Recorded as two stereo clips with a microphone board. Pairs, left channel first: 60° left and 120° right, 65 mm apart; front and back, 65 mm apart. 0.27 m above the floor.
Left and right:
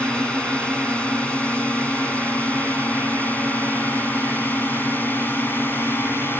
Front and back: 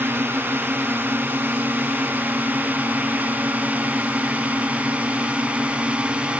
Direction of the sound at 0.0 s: 130° left.